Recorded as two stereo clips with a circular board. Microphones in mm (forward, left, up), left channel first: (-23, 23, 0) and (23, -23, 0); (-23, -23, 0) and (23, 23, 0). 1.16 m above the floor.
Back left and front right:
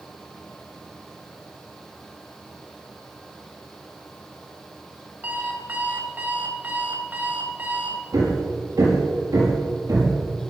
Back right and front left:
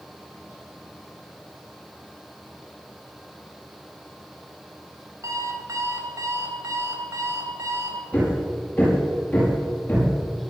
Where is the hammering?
65° right, 7 m.